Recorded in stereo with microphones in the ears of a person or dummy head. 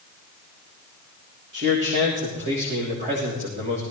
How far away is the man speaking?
About 3.5 m.